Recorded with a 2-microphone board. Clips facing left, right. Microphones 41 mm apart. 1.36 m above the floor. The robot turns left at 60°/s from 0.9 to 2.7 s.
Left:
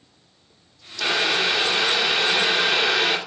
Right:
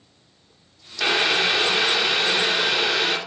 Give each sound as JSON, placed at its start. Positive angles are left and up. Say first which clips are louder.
{"t": 1.0, "sound": "boiling", "louder": "right 1 dB", "side_deg": -25, "distance_m": 0.5}